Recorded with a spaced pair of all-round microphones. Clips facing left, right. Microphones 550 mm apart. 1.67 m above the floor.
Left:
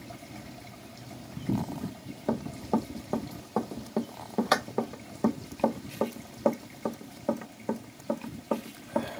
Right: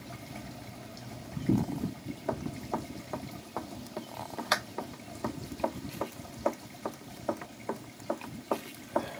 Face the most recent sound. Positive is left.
turn(degrees=45)  # may be behind; listen again after turning